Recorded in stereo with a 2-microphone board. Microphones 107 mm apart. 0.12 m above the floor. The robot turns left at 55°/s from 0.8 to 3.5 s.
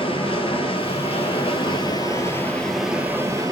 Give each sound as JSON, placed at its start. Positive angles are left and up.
{"t": 0.0, "sound": "running water", "azimuth_deg": 110, "distance_m": 0.7}